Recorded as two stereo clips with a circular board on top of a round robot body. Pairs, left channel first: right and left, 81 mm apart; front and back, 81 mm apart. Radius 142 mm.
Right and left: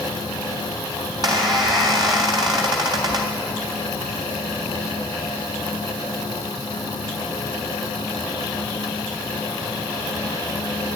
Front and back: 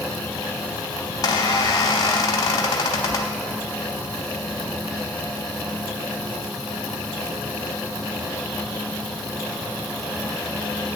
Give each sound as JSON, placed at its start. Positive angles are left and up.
{"t": 1.1, "sound": "a squeak", "azimuth_deg": 50, "distance_m": 0.8}